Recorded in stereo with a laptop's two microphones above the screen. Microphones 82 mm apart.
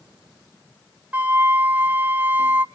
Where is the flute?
15° right (ahead or behind), 0.6 m.